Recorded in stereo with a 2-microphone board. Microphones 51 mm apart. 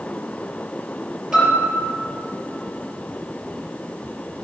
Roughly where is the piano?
Centre.